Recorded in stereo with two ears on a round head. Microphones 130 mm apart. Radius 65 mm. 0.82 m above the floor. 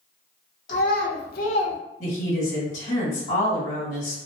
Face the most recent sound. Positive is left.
turn(degrees=50)  # may be behind; listen again after turning